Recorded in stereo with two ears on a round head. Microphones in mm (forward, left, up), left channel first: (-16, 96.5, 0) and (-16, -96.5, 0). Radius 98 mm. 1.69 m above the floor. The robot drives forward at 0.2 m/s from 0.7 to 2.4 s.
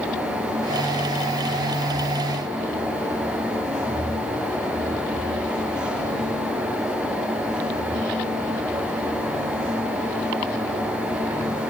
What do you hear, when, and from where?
Only background noise.